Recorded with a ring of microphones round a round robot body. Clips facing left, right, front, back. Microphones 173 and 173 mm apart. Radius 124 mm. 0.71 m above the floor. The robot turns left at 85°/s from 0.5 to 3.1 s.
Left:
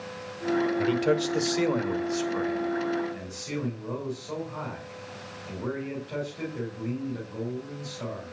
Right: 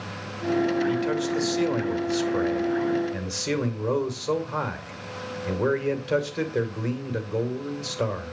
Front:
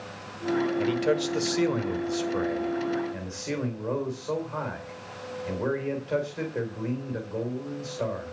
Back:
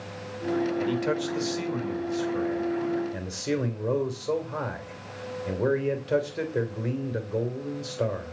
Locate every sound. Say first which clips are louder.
0.8 s a man speaking: even, front 2 dB; 80° left, 2.5 m; by 8.3 s 115° right, 2.5 m